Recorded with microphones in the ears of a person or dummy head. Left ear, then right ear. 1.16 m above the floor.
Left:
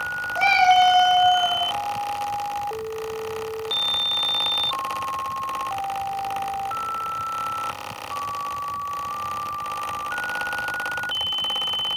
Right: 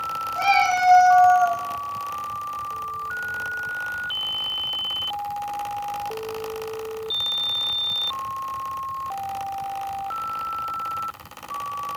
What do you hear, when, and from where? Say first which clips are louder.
0.3 s a cat meowing: left 3 dB; 35° right (ahead or behind), 1.0 m; by 1.6 s 65° right (ahead or behind), 1.5 m